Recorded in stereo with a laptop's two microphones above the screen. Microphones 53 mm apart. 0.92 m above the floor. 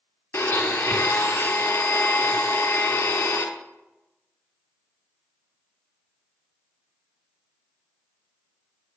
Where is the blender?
50° left (ahead or behind), 0.6 m.